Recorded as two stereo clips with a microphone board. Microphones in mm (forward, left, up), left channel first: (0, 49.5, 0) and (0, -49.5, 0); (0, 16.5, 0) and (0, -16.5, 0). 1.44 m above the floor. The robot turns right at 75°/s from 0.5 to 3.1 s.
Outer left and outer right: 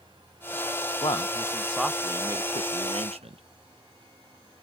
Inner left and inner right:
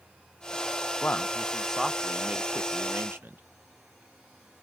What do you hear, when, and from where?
1.0 s a man speaking: 120° left, 0.9 m; by 3.4 s 85° right, 0.9 m